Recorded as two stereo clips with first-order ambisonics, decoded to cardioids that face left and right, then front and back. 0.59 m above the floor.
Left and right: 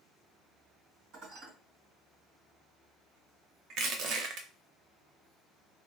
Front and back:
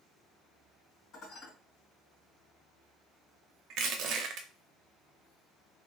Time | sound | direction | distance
1.1 | dishes clattering | 55° right | 2 m
3.7 | crushing | 135° right | 0.6 m